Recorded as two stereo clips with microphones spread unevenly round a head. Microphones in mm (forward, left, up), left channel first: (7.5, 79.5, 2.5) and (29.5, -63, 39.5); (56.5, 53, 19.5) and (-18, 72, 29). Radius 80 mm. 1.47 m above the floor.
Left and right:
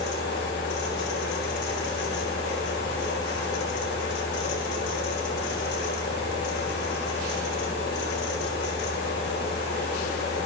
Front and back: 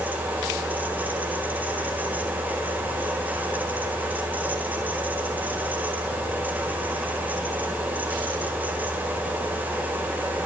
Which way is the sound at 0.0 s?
100° left.